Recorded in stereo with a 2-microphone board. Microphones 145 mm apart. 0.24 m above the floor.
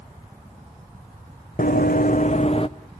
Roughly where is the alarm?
No alarm in this recording.